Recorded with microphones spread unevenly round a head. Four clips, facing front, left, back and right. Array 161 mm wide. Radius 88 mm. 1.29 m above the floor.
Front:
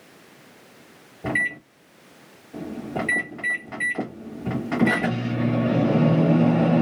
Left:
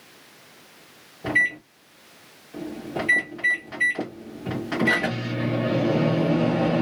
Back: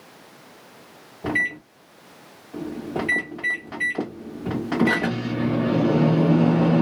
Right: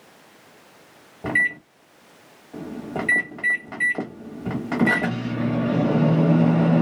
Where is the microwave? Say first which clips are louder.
Even, back 1 dB; 115° right, 0.9 m.